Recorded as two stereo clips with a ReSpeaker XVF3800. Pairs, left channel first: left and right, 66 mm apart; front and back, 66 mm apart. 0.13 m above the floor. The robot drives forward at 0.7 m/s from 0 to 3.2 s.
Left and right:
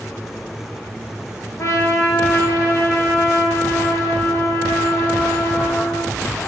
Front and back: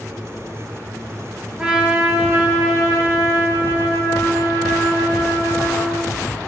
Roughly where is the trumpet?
Left.